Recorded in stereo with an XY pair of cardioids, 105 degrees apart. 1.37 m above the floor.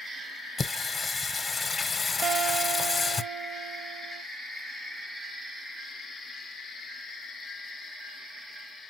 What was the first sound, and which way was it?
Singing, 30° left.